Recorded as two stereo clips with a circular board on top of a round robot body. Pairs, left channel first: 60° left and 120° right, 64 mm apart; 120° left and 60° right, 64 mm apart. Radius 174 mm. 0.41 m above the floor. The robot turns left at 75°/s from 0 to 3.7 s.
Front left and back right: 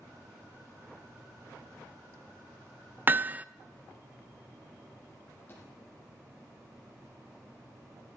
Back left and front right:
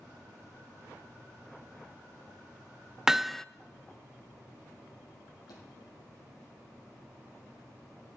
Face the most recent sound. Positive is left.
turn(degrees=120)